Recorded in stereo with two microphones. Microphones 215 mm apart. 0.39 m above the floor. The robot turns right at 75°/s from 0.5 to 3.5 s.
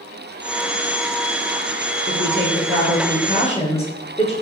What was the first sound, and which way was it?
A woman speaking, 45° left.